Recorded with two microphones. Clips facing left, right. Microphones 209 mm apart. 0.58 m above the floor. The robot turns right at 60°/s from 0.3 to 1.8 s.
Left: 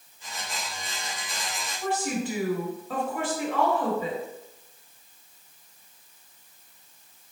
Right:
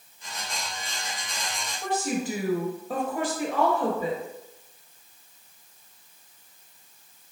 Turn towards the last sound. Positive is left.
turn(degrees=-20)  # may be behind; listen again after turning